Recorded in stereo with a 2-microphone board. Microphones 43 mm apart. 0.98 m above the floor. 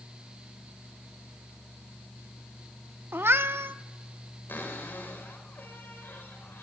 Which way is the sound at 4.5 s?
55° left (ahead or behind).